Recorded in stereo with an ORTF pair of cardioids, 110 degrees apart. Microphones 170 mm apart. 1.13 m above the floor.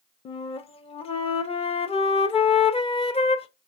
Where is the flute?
35° left, 0.8 m.